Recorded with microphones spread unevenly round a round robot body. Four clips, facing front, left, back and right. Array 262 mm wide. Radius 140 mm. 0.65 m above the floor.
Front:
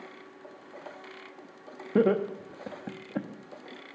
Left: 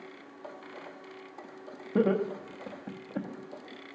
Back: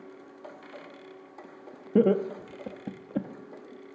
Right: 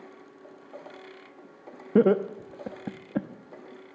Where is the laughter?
115° right, 0.7 m.